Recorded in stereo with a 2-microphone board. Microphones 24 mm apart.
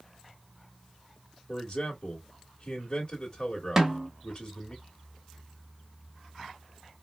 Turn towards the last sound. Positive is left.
turn(degrees=-25)  # may be behind; listen again after turning